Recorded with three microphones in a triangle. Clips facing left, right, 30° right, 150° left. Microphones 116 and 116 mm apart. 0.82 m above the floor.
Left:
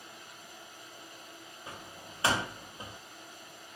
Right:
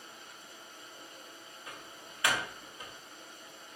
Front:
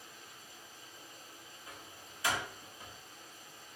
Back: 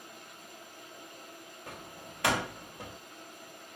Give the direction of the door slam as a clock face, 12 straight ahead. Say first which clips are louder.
Left 3 dB, back 7 dB; 7 o'clock.